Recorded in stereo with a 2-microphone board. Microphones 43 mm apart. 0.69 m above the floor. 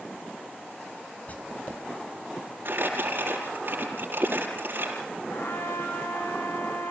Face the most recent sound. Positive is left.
turn(degrees=75)  # may be behind; listen again after turning